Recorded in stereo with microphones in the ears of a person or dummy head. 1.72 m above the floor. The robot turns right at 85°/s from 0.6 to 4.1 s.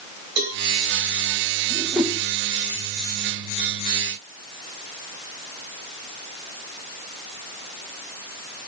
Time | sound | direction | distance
0.4 | a cowbell | 55° right (ahead or behind) | 6 m
1.7 | a whoosh | 20° right (ahead or behind) | 2 m